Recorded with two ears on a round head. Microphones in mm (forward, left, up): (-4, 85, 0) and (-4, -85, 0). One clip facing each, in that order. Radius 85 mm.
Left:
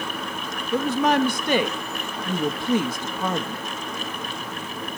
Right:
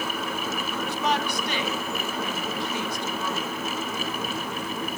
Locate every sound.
0.7 s a woman speaking: 45° left (ahead or behind), 1.0 m